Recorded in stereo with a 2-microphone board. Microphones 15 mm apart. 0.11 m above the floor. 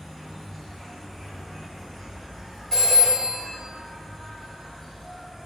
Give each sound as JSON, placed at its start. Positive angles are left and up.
{"t": 0.0, "sound": "an insect", "side_deg": 30, "distance_m": 1.4}
{"t": 2.7, "sound": "a phone ringing", "side_deg": 20, "distance_m": 1.5}